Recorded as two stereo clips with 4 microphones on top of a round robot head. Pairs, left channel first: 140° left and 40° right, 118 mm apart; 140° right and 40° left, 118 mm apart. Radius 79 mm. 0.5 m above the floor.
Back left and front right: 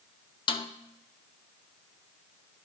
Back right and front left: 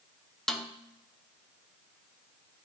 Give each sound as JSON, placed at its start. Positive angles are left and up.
{"t": 0.5, "sound": "a snare drum", "azimuth_deg": 135, "distance_m": 0.7}